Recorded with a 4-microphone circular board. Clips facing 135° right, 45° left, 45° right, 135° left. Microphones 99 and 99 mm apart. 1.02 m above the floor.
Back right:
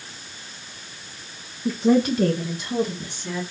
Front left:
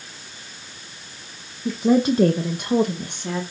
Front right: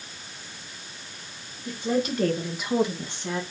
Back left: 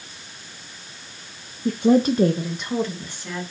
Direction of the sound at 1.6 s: 140° left.